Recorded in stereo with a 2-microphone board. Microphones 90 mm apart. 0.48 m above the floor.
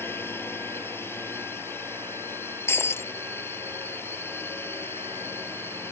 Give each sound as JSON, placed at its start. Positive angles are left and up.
{"t": 0.0, "sound": "a drone", "side_deg": 25}
{"t": 2.7, "sound": "breaking glass", "side_deg": 25}